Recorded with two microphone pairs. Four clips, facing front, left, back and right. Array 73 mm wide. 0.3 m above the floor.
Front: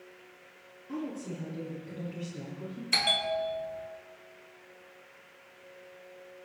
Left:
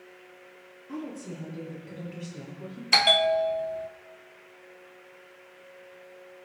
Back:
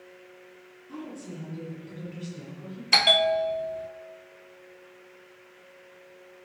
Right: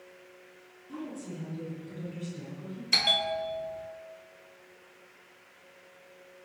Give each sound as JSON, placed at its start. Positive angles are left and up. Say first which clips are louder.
{"t": 0.9, "sound": "a woman speaking", "louder": "left 2 dB, front 3 dB", "azimuth_deg": 65, "distance_m": 7.5}
{"t": 2.9, "sound": "a bell", "louder": "left 8 dB, back 8 dB", "azimuth_deg": 125, "distance_m": 0.6}